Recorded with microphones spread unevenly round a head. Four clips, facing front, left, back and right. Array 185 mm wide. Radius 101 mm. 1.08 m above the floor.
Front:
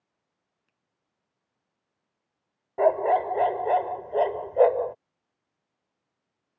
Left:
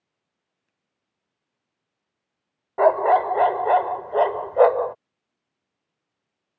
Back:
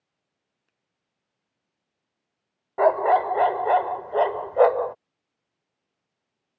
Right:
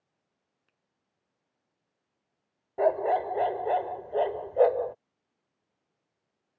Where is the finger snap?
115° right.